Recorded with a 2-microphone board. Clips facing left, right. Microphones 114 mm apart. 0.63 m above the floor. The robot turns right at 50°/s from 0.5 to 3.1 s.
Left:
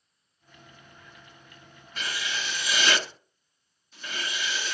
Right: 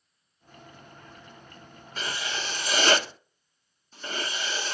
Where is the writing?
120° right, 1.0 m; by 4.7 s 65° right, 1.0 m.